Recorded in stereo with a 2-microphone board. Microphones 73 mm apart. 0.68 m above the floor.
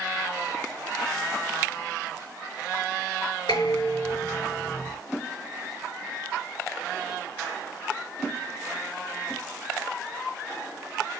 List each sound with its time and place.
3.5 s dishes clattering: 70° left (ahead or behind), 7 m